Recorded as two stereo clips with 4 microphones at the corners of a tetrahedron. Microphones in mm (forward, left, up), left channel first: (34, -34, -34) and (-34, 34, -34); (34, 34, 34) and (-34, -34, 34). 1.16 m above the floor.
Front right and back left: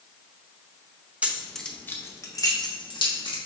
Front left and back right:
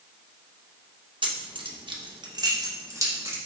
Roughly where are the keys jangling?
Behind right.